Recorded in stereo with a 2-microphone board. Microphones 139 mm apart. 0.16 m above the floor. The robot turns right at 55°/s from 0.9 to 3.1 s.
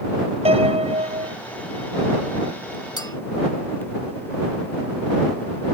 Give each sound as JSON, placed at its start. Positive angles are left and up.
{"t": 0.5, "sound": "a piano", "side_deg": -45}
{"t": 3.0, "sound": "a clink", "side_deg": 30}